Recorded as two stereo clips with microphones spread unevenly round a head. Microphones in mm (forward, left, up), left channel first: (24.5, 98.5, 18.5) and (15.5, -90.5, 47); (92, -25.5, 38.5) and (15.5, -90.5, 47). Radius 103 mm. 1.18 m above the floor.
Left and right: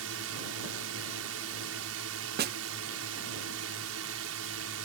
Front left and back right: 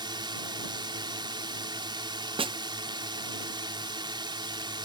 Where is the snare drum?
125° right.